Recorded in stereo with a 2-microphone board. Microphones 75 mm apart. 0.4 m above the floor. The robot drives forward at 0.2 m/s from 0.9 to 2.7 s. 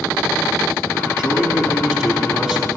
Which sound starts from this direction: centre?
A man speaking, at 1.2 s.